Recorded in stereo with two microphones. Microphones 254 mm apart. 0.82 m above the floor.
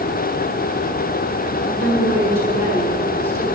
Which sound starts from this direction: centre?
A woman speaking, at 1.6 s.